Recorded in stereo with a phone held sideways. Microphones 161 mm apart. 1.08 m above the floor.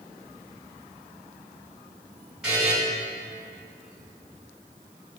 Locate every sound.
2.4 s a buzzer: 5° right (ahead or behind), 3 m